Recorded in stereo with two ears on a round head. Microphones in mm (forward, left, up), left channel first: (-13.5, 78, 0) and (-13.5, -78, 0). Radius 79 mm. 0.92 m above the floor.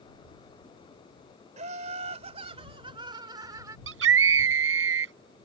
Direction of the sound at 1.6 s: 45° right (ahead or behind).